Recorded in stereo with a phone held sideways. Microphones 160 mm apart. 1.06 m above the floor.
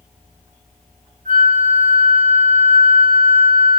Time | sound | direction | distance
1.2 | a flute | 85° right | 4 m